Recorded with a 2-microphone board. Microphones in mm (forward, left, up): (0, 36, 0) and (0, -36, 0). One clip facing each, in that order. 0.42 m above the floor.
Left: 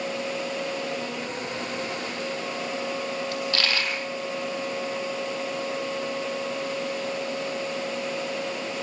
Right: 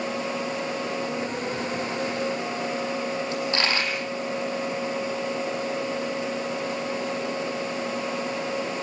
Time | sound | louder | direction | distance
3.3 | a dropped coin | right 2 dB | 25° right (ahead or behind) | 6.5 m